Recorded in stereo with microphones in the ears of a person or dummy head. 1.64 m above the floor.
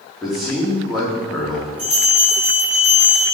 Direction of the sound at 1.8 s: 15° right (ahead or behind).